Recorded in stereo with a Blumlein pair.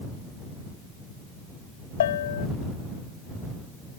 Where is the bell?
60° left.